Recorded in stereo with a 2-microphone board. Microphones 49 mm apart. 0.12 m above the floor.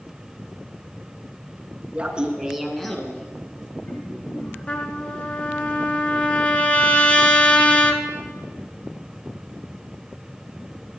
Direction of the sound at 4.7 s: 25° left (ahead or behind).